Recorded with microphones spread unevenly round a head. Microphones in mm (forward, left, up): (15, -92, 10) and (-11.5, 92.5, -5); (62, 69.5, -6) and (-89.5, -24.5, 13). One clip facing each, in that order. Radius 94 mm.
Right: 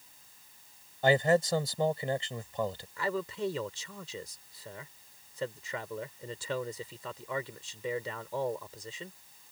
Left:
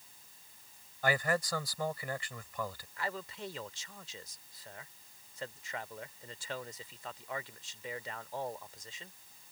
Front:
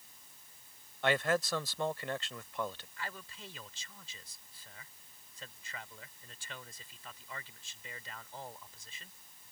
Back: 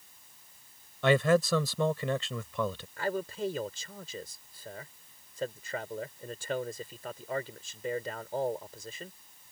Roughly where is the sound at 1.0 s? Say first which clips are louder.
Right 8 dB, back 7 dB; behind right.